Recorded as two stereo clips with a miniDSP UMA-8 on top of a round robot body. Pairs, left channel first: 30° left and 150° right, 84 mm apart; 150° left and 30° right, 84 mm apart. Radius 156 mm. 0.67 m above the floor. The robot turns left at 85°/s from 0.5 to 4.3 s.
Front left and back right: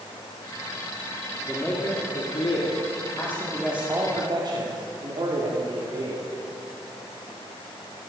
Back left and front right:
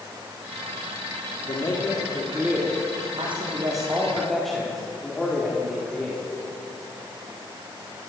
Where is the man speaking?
120° left, 2 m; by 6.2 s 120° right, 2 m.